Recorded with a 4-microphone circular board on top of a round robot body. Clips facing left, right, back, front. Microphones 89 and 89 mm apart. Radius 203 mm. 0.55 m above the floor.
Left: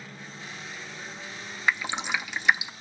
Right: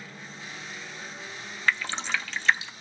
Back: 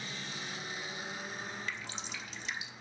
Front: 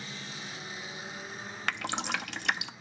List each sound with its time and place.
1.7 s dripping: 15° left, 0.8 m